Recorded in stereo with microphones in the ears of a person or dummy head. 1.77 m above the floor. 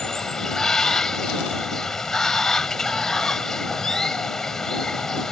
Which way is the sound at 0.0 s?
Centre (ahead or behind).